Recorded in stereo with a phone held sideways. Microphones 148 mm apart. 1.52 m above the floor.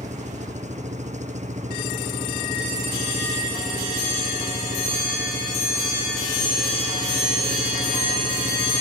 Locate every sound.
0.0 s an engine running: 50° right (ahead or behind)